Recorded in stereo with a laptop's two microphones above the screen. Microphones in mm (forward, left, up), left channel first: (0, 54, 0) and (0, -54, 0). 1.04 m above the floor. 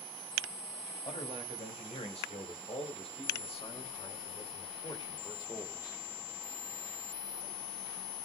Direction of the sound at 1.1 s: 85° left.